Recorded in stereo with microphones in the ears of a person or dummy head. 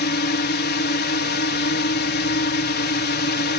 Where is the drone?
50° left (ahead or behind).